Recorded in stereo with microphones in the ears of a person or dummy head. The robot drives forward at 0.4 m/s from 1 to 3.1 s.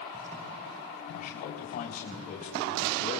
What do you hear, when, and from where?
1.1 s a man speaking: 50° left (ahead or behind), 3.5 m; by 3.2 s 45° left (ahead or behind), 4 m